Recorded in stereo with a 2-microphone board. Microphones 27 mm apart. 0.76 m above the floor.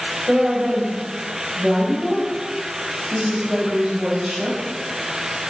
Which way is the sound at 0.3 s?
45° right (ahead or behind).